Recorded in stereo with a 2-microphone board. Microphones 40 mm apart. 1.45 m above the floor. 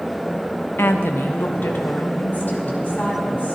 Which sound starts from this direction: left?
A woman speaking, at 0.8 s.